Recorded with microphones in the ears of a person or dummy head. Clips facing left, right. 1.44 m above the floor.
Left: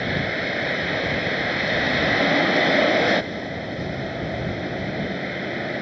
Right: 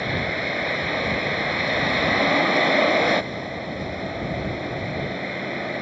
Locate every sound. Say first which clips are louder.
0.0 s a vehicle: left 1 dB; 5° left (ahead or behind)